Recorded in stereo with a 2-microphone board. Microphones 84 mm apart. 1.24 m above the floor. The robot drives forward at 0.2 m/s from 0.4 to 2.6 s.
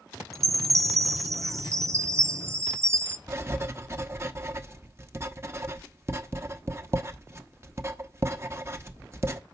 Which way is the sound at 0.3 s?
40° right (ahead or behind).